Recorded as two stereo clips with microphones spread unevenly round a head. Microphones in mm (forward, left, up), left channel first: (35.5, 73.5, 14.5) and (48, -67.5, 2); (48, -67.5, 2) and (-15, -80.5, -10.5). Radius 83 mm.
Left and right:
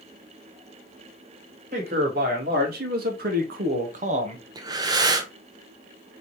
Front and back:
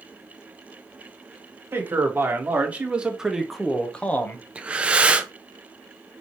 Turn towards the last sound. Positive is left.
turn(degrees=-125)